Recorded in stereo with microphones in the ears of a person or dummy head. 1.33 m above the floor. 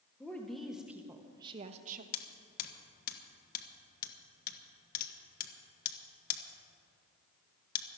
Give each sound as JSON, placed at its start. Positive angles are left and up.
{"t": 0.2, "sound": "a woman speaking", "side_deg": 10, "distance_m": 1.5}
{"t": 2.1, "sound": "hammering", "side_deg": 50, "distance_m": 1.3}